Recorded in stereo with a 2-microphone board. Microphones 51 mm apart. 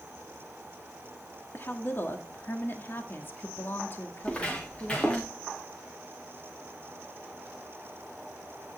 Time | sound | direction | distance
1.5 | a woman speaking | 50° left (ahead or behind) | 1.5 m
4.2 | footsteps | 20° left (ahead or behind) | 6 m